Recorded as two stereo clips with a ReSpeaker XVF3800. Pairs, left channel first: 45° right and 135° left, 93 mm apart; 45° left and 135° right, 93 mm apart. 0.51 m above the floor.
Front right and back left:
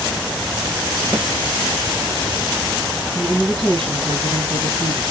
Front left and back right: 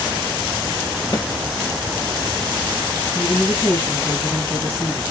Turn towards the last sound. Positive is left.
turn(degrees=100)